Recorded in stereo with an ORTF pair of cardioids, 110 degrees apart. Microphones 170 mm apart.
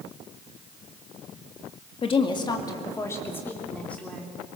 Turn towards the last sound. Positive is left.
turn(degrees=5)